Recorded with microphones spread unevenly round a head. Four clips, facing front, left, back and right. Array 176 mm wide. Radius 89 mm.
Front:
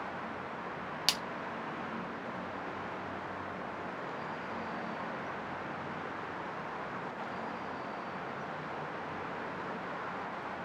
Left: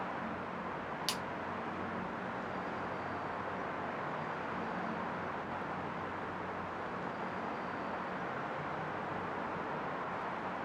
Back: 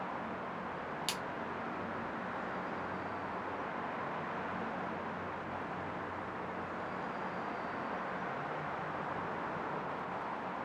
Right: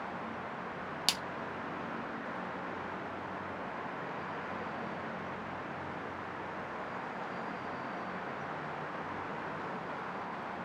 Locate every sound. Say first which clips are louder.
1.1 s a splash: right 3 dB, front 2 dB; 45° right, 0.5 m